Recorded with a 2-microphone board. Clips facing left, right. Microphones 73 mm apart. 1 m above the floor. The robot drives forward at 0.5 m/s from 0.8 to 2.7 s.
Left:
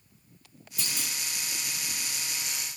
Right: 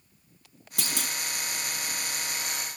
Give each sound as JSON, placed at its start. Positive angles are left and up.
{"t": 0.8, "sound": "a clunk", "side_deg": -70, "distance_m": 1.8}